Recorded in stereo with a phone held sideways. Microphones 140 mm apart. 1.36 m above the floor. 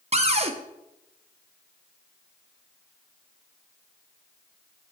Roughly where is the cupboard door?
Right.